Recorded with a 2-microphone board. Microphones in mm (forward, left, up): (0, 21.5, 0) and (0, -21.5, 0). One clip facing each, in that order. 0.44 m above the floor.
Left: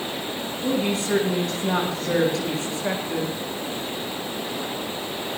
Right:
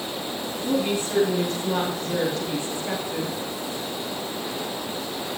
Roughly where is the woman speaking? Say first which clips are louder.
Left 1 dB; left.